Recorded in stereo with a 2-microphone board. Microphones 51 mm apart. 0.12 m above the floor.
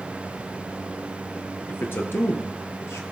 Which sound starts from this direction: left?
A man speaking, at 1.7 s.